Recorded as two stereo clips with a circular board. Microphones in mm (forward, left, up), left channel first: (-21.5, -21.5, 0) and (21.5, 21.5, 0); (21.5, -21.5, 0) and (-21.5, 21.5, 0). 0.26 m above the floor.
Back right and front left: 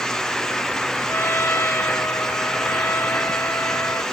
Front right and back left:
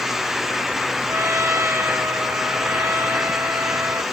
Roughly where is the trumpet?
Behind.